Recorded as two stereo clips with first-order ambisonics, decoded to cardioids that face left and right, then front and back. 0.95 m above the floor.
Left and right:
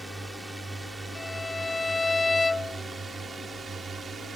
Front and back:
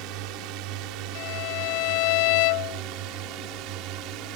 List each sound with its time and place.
0.0 s a drone: 175° right; by 4.4 s 160° right
1.1 s a violin: 10° left